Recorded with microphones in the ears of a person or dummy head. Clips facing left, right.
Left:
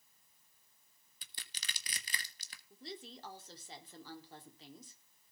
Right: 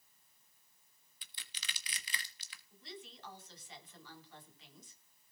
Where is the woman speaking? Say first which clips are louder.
Left 4 dB; 30° left (ahead or behind), 4 m.